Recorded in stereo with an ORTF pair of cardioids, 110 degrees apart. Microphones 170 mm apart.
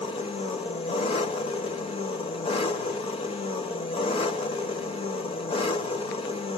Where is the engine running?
35° left, 1.7 m.